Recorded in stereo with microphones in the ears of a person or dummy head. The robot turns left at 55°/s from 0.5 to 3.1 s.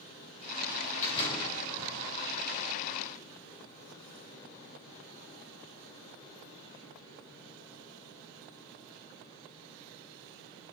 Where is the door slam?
45° left, 4 m; by 2.0 s 10° right, 4 m.